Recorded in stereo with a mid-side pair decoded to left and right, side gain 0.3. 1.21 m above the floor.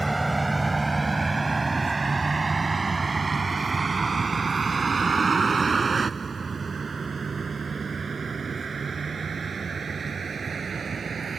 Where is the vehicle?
20° right; by 11.4 s 60° right.